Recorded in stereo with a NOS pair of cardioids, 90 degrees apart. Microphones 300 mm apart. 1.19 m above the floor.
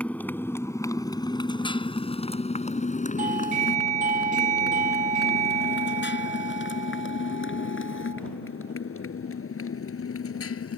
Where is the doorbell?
25° right.